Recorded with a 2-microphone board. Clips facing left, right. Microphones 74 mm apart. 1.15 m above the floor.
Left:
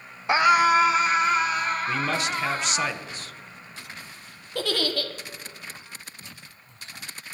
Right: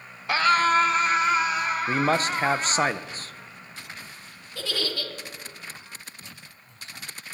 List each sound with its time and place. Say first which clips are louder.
0.3 s a scream: left 2 dB; 20° left (ahead or behind), 0.7 m; by 2.9 s 10° right (ahead or behind), 3 m
1.9 s a man speaking: right 3 dB; 40° right (ahead or behind), 0.7 m
4.5 s a giggle: left 5 dB; 60° left (ahead or behind), 1.5 m